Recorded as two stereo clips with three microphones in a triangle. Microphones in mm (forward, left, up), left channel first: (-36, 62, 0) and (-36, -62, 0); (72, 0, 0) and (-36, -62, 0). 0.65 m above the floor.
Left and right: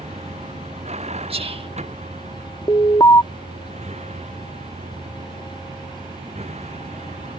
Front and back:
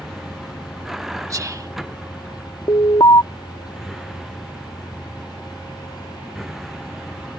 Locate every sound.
0.0 s a vehicle: 60° right
1.3 s whispering: 95° right
2.7 s an alarm: 50° left